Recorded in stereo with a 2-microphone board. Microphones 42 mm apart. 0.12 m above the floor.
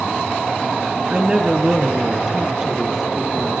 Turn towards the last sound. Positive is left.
turn(degrees=-5)  # may be behind; listen again after turning